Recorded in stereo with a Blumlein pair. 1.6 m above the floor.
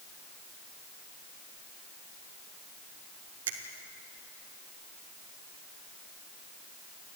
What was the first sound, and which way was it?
A finger snap, 60° right.